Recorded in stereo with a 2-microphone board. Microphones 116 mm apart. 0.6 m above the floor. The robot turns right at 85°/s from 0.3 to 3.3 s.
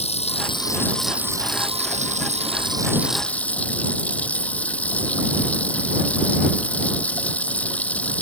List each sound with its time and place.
0.0 s running water: 115° left; by 8.2 s 10° left